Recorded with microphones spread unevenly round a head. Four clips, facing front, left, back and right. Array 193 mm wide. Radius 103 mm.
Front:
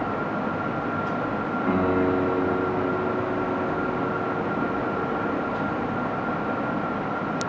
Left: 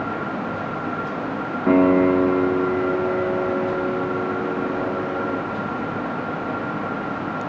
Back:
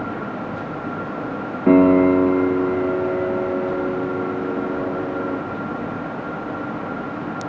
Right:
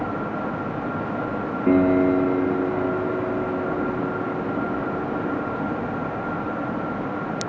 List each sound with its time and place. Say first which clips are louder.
1.7 s a piano: left 2 dB, back 11 dB; 170° right, 1.0 m